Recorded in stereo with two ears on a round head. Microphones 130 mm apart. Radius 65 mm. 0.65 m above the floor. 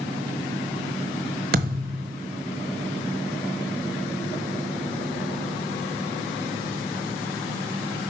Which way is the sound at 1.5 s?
70° right (ahead or behind).